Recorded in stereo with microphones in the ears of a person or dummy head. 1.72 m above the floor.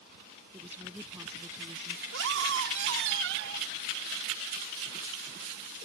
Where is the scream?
70° right (ahead or behind).